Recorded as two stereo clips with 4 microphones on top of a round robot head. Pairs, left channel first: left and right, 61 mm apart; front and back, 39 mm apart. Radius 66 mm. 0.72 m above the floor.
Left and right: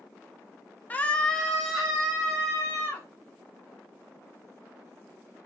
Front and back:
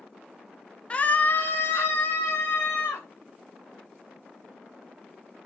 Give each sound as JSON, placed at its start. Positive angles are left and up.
{"t": 0.9, "sound": "a scream", "azimuth_deg": 45, "distance_m": 0.8}